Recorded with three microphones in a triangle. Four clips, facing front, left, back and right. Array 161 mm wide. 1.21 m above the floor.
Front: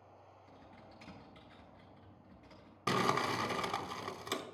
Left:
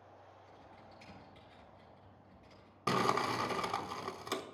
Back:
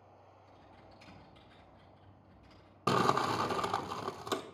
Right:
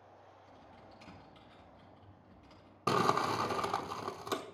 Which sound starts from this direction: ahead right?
Typing on a keyboard, at 0.5 s.